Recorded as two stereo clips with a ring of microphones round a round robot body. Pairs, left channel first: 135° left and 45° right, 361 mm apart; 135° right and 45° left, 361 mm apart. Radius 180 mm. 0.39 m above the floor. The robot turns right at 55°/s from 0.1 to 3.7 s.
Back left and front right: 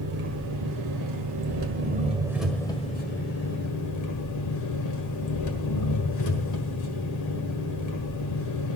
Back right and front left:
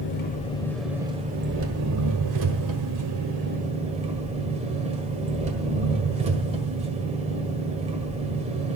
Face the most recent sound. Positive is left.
turn(degrees=115)